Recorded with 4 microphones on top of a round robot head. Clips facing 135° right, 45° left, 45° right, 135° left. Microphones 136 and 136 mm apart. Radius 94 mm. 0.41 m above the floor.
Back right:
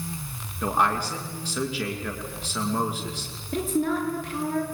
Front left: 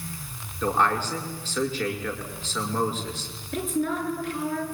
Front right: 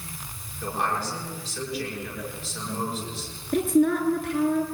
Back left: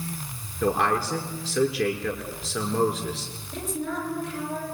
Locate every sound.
0.6 s a man speaking: 150° left, 6.5 m
3.5 s a woman speaking: 80° right, 7 m